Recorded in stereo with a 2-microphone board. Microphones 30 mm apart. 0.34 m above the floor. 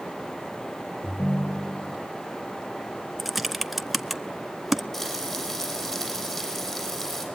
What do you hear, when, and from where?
1.0 s a ringtone: 75° left (ahead or behind), 3.5 m
3.2 s typing on a keyboard: 10° right (ahead or behind), 0.8 m
4.9 s frying: 20° left (ahead or behind), 8.5 m